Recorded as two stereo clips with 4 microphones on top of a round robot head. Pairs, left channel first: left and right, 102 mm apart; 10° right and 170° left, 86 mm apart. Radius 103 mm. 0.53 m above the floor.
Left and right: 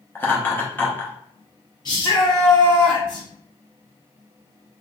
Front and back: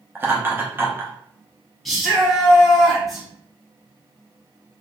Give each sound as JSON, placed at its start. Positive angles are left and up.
{"t": 0.1, "sound": "laughter", "azimuth_deg": 140, "distance_m": 0.7}
{"t": 1.9, "sound": "a shout", "azimuth_deg": 80, "distance_m": 1.7}